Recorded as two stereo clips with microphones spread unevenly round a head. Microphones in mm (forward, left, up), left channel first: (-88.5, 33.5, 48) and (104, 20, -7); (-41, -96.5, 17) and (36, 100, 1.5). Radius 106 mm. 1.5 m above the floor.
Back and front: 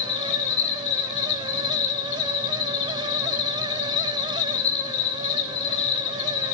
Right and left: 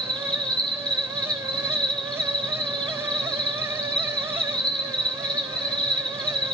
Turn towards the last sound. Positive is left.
turn(degrees=165)